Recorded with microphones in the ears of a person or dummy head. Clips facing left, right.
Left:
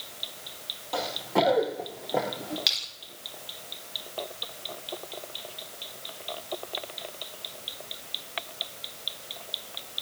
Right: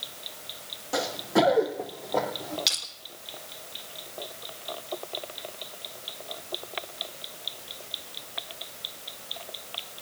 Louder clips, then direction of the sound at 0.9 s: Right 2 dB; 20° right (ahead or behind).